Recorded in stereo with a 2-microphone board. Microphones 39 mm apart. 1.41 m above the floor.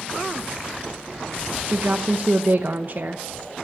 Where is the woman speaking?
55° right (ahead or behind), 0.9 m.